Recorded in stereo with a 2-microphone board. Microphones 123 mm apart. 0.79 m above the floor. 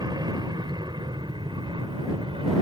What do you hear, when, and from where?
0.0 s an aircraft: 40° right (ahead or behind); by 2.6 s 45° right (ahead or behind)